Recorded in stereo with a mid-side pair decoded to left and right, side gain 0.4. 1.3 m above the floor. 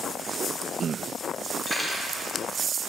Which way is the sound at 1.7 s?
30° right.